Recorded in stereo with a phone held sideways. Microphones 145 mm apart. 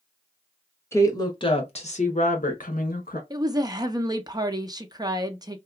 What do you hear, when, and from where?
0.9 s a woman speaking: 20° left (ahead or behind), 0.9 m; by 3.2 s 85° left, 1.3 m
3.3 s a woman speaking: 25° right (ahead or behind), 0.6 m